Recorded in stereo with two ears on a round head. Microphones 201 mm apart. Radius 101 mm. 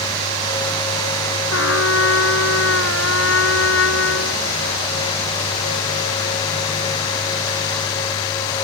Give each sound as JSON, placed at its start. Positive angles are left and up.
{"t": 1.5, "sound": "a trumpet", "side_deg": 60}